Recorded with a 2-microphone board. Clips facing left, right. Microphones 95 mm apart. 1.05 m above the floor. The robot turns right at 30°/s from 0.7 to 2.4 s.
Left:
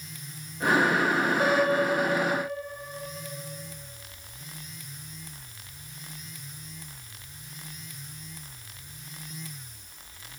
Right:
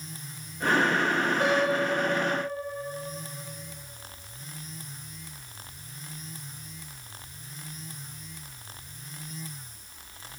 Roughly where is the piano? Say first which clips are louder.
Left 2 dB; ahead.